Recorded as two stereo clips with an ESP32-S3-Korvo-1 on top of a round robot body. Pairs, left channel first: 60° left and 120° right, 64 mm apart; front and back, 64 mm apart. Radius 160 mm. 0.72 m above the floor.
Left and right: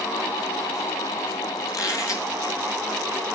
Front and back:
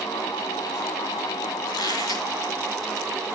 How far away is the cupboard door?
I don't hear a cupboard door.